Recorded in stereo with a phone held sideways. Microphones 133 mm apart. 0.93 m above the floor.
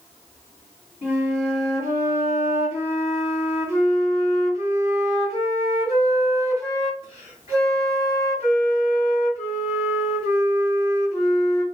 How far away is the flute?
About 2 m.